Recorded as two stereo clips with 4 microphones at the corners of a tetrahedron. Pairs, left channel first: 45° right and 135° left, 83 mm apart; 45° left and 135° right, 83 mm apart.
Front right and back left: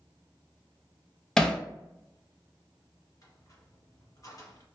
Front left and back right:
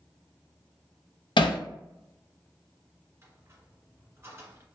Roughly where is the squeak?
Right.